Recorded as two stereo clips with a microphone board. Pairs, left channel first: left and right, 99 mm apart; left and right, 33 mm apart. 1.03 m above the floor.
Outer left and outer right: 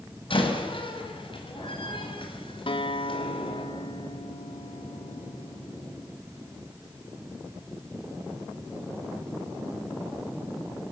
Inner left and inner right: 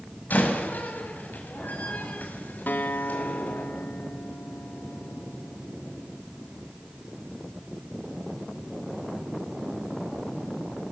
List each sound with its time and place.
0.3 s a door slam: 60° left (ahead or behind), 6 m
2.7 s a guitar: 60° left (ahead or behind), 2.5 m